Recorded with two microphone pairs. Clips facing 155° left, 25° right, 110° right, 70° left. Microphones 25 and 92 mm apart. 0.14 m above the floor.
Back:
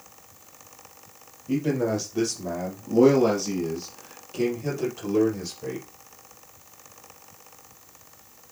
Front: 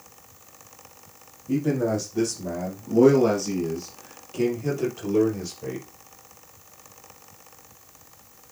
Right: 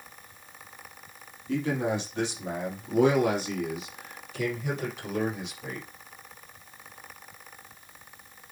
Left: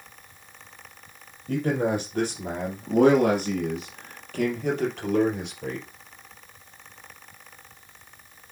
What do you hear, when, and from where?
1.5 s a man speaking: 95° left, 3.5 m; by 5.8 s 55° left, 4 m